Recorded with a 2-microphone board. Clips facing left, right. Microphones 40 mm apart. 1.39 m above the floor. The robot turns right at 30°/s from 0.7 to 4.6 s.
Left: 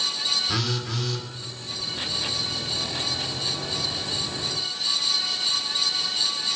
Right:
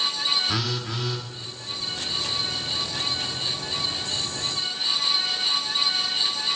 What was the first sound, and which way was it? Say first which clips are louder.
A phone buzzing: even; 10° right (ahead or behind).